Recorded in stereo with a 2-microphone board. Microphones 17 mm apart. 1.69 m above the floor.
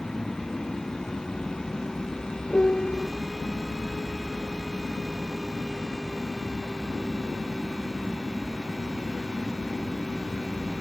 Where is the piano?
85° left.